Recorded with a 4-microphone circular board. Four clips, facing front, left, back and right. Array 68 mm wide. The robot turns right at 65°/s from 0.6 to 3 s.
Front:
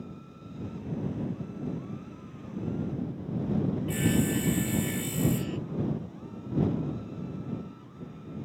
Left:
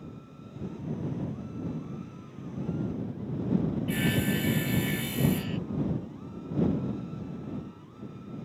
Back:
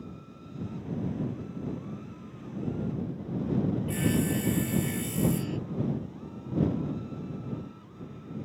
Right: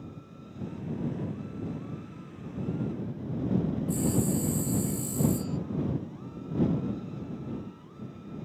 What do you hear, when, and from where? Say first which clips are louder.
3.9 s sawing: even, front 4 dB; 85° left